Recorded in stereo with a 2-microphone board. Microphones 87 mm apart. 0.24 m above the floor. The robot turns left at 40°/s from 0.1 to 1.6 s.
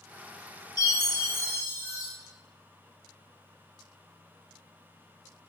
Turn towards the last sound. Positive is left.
turn(degrees=30)